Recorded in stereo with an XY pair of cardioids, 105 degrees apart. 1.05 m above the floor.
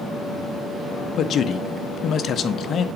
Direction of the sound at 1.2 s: 50° left.